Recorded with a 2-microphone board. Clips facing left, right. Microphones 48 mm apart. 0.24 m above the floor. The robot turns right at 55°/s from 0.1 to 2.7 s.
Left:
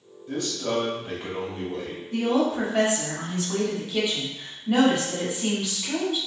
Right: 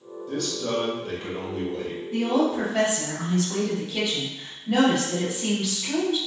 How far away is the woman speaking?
About 1.2 m.